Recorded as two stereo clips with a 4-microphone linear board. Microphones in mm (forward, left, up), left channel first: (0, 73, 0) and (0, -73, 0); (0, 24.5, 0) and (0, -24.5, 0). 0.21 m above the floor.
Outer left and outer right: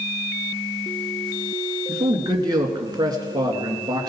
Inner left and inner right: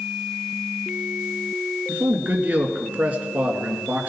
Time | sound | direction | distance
1.9 | a man speaking | 25° right (ahead or behind) | 2.5 m